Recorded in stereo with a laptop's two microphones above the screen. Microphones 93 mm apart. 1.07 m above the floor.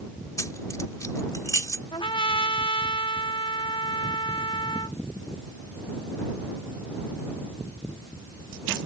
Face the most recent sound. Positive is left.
turn(degrees=80)